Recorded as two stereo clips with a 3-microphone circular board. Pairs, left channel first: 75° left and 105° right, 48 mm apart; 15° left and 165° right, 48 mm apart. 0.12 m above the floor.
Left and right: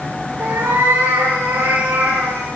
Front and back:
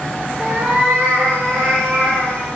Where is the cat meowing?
105° right, 6 m; by 2.5 s 120° right, 4.5 m.